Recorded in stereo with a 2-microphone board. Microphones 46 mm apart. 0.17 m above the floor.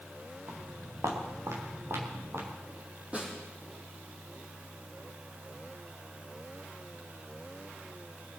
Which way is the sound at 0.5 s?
85° right.